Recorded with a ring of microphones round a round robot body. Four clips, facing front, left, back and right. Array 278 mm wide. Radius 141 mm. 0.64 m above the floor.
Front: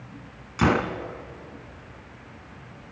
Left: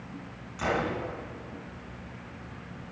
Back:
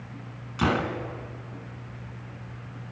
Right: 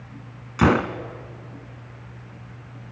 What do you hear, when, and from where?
0.6 s a gunshot: 80° right, 1.2 m